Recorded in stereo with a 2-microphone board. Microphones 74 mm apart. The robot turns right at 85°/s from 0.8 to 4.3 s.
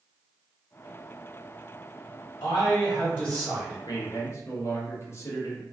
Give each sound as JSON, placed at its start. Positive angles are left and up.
{"t": 2.4, "sound": "a man speaking", "azimuth_deg": 95, "distance_m": 1.1}
{"t": 3.9, "sound": "a man speaking", "azimuth_deg": 100, "distance_m": 0.8}